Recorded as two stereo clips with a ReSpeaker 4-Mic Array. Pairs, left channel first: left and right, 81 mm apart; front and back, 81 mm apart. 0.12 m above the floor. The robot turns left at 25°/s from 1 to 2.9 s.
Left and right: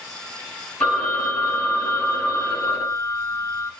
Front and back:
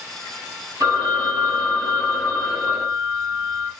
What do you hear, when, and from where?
0.8 s a phone ringing: 175° left, 1.4 m; by 3.7 s 125° left, 1.4 m